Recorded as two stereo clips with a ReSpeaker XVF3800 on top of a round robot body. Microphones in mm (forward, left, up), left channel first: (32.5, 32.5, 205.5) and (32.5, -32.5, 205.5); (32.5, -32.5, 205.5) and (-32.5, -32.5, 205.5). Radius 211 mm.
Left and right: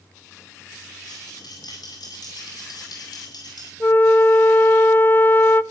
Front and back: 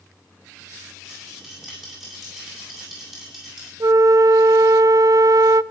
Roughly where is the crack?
No crack in this recording.